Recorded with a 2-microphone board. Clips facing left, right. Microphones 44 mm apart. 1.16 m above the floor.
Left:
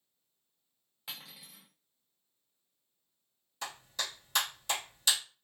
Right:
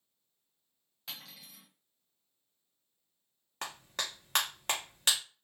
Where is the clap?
55° right (ahead or behind), 0.9 m.